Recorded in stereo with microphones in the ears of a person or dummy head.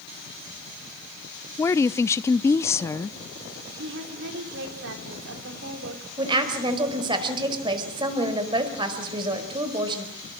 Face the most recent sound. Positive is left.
turn(degrees=-25)  # may be behind; listen again after turning